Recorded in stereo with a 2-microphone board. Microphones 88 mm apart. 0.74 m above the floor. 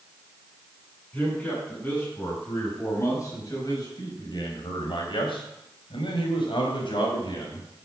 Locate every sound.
1.1 s a man speaking: 20° left (ahead or behind), 7.5 m; by 7.7 s 65° left (ahead or behind), 6 m